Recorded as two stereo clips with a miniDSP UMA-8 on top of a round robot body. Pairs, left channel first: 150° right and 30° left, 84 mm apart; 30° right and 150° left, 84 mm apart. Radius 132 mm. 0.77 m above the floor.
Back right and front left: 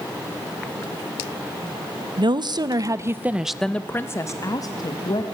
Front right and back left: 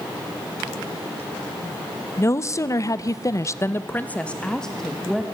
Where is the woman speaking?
25° left, 1.2 m; by 5.3 s 120° right, 1.6 m.